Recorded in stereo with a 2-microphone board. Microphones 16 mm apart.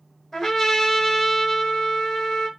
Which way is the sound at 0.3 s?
35° left (ahead or behind).